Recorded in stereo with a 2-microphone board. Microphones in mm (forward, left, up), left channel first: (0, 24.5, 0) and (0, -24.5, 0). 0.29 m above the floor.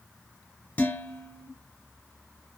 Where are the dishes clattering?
35° left (ahead or behind), 1.1 m.